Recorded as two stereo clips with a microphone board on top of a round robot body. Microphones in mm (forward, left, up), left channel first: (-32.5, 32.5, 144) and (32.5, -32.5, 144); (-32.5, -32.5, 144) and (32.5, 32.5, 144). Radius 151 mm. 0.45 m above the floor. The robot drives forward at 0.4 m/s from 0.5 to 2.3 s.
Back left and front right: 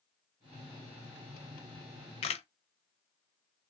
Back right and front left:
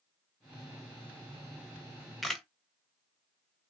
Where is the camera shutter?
120° left, 0.5 m; by 2.5 s 135° left, 0.6 m.